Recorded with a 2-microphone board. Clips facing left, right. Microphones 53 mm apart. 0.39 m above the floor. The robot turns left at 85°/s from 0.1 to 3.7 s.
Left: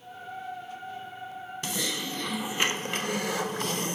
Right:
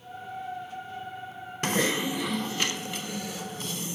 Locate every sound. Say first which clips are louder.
1.6 s typing on a keyboard: right 8 dB; 120° right, 0.6 m; by 4.0 s 65° left, 0.6 m